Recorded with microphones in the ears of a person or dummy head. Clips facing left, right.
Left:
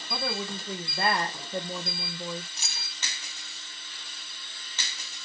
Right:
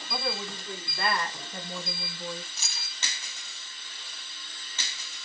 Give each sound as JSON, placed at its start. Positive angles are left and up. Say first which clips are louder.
{"t": 0.1, "sound": "a woman speaking", "louder": "left 1 dB", "side_deg": 5, "distance_m": 1.4}
{"t": 2.6, "sound": "keys jangling", "louder": "left 1 dB", "side_deg": 15, "distance_m": 1.0}